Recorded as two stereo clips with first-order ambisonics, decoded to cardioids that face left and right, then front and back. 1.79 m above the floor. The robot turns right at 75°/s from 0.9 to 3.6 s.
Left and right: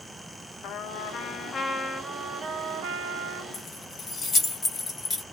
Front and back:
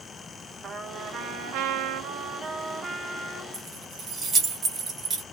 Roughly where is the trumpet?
Behind left.